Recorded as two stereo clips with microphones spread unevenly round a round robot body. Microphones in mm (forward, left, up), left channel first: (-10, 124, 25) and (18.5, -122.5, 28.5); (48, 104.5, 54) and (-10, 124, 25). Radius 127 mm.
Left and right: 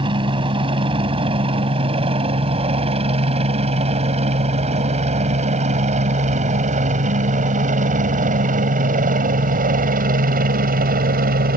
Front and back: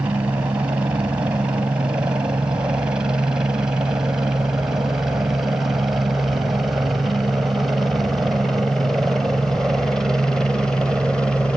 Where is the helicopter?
150° right; by 11.6 s 120° right.